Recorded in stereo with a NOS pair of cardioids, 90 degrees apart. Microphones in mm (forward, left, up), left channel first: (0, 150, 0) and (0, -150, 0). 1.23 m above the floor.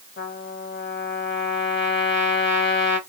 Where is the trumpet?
40° left, 1.1 m.